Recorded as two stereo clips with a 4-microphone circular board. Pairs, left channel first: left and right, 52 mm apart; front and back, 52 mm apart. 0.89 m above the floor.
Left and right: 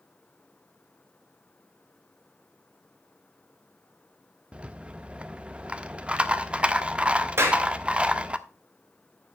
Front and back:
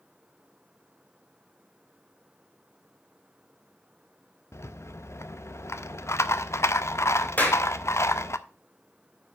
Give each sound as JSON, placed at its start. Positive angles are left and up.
{"t": 4.5, "sound": "a rattle", "azimuth_deg": -25, "distance_m": 0.5}
{"t": 7.4, "sound": "a clap", "azimuth_deg": -55, "distance_m": 2.5}